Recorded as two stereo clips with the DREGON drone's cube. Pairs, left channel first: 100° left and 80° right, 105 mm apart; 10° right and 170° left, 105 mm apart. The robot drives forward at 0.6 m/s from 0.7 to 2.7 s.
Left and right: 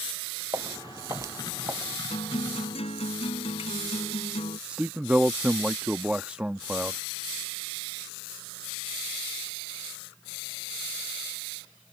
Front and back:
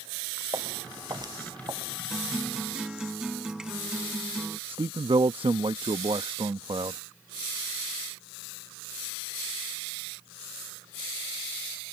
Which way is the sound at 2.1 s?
80° left.